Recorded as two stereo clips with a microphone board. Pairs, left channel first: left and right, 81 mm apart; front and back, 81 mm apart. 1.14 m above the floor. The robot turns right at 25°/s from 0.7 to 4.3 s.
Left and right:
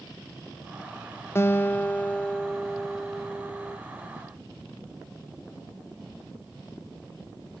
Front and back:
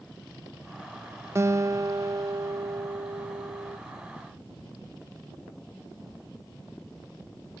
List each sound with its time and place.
1.4 s a guitar: 140° left; by 3.8 s 160° right